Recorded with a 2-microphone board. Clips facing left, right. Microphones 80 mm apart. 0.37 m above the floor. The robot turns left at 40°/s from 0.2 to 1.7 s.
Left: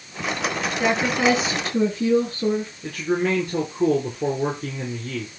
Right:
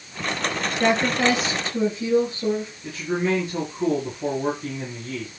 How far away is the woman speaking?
About 7.5 m.